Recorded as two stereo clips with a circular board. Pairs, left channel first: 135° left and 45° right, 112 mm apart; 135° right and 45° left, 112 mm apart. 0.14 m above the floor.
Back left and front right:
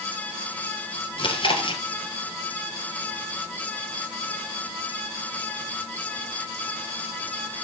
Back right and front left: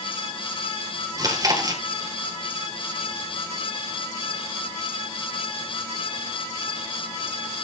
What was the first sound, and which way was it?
Chewing, 100° left.